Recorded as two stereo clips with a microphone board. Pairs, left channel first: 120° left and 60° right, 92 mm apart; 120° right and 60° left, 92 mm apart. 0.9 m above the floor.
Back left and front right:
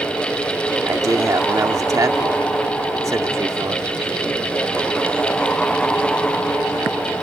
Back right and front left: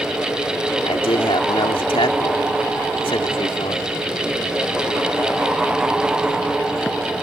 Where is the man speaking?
110° right.